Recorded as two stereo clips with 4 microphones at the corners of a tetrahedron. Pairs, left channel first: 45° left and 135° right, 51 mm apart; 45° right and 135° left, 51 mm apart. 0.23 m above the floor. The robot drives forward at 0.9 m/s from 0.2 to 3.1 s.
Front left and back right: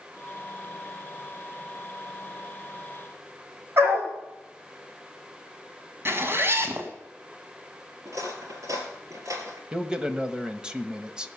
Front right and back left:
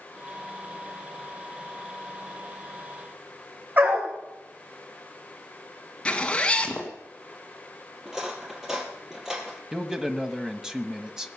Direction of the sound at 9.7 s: 175° right.